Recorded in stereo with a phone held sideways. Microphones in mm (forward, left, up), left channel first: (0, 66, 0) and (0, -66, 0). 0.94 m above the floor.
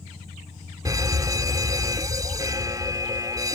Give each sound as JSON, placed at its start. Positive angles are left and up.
{"t": 0.8, "sound": "a fire alarm", "side_deg": -25}